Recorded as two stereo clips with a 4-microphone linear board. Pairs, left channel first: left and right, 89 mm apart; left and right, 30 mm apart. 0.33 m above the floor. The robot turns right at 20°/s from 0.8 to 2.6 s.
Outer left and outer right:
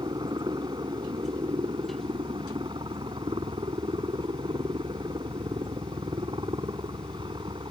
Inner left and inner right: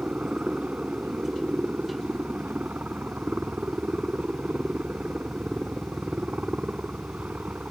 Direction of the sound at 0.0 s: 115° right.